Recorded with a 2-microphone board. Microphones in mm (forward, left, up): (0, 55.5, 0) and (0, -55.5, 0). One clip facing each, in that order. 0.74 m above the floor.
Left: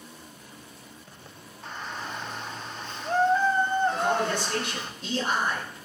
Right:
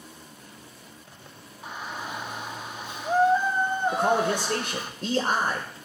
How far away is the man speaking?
About 2.5 m.